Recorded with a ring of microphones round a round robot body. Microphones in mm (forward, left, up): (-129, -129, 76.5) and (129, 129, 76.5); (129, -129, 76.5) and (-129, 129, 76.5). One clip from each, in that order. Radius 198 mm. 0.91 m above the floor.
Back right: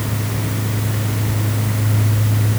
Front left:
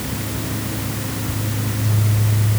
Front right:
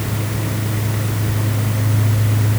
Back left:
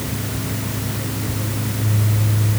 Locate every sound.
Only background noise.